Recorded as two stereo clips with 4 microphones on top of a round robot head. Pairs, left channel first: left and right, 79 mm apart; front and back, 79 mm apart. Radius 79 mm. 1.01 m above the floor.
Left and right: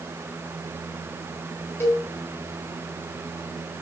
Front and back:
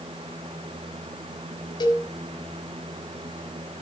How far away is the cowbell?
About 5 m.